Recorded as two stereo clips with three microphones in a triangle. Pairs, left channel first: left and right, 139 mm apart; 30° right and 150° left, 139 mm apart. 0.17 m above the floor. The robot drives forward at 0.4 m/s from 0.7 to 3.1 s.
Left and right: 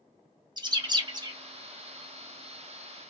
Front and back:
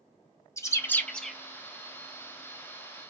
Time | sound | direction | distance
0.6 | a bird | 80° right | 0.6 m